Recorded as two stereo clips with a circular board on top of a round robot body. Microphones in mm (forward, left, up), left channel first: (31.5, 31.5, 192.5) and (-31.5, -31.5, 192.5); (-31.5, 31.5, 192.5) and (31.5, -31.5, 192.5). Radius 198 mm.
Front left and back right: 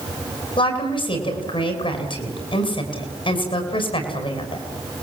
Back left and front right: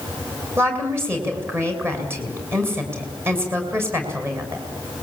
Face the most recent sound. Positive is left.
turn(degrees=20)